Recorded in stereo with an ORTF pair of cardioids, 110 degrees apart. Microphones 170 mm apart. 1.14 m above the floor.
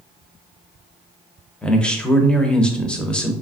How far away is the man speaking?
About 0.6 m.